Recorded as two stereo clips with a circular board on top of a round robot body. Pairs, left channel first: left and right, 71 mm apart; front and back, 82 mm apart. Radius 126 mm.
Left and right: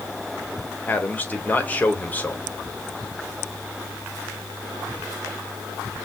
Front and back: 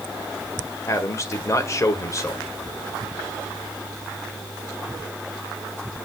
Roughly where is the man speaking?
Ahead left.